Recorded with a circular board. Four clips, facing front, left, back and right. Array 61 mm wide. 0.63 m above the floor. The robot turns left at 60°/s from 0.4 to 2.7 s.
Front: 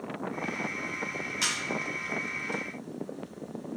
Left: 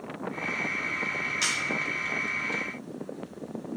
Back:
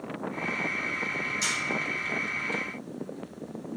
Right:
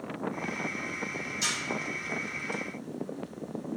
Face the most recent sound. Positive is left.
turn(degrees=-35)